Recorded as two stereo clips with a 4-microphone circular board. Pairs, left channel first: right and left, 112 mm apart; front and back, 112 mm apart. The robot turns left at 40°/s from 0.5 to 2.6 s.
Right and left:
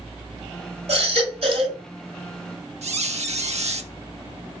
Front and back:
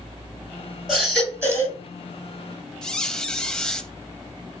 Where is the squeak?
85° left, 0.5 m.